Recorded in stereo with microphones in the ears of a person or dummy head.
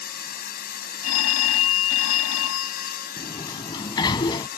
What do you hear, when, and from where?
0.0 s a machine running: 50° left (ahead or behind)
1.0 s a phone ringing: 85° left
3.2 s a sliding door: 25° left (ahead or behind)